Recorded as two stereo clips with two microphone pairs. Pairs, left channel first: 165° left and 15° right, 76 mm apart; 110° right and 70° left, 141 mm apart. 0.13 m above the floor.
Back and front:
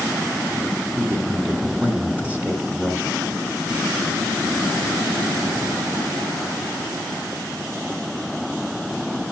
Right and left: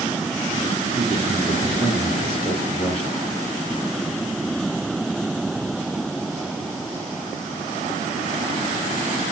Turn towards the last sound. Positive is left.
turn(degrees=-40)